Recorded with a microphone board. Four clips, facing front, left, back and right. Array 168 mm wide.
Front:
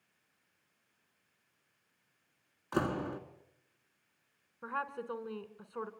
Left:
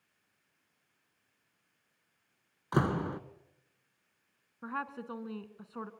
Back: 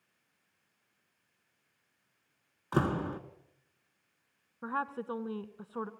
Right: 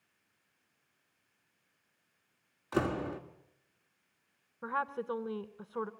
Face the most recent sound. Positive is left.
turn(degrees=-130)